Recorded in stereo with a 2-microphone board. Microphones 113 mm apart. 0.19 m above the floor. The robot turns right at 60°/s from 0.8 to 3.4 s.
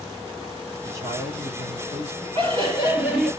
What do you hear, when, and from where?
0.8 s a man speaking: 150° right, 3 m; by 2.2 s 65° right, 3 m
2.4 s laughter: 55° right, 3.5 m; by 3.3 s straight ahead, 3.5 m